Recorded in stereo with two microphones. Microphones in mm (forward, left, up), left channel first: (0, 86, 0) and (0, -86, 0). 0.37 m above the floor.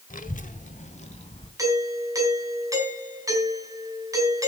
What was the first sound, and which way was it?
A child speaking, 50° left (ahead or behind).